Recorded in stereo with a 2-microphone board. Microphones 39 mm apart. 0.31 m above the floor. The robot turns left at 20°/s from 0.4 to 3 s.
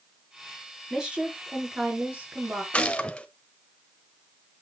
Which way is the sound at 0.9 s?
15° right.